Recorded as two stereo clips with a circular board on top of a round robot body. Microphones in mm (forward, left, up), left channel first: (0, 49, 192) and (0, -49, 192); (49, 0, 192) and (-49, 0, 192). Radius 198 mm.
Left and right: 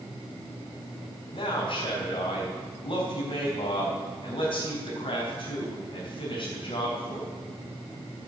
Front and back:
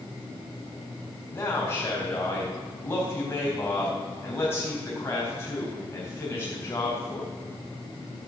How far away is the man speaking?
About 4 m.